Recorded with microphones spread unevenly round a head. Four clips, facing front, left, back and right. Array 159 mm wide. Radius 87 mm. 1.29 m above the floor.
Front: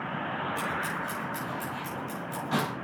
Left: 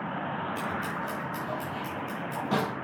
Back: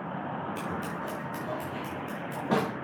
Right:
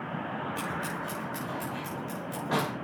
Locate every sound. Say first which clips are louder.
0.6 s scissors: left 2 dB, front 2 dB; 175° right, 4.5 m